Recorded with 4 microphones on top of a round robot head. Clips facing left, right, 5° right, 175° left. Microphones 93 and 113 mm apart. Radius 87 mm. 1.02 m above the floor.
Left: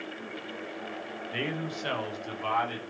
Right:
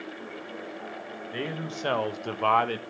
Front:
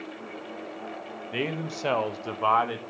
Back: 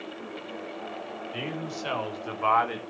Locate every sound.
1.3 s a man speaking: 10° right, 1.7 m; by 2.8 s 90° right, 1.8 m